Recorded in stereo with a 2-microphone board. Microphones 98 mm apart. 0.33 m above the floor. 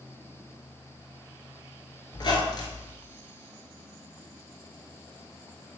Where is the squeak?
50° left (ahead or behind), 0.6 m.